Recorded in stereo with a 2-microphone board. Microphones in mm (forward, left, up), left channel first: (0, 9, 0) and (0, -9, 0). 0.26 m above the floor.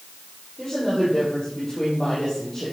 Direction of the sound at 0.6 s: 30° left (ahead or behind).